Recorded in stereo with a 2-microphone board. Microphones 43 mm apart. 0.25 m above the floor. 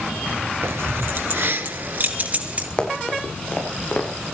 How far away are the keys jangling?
About 3 m.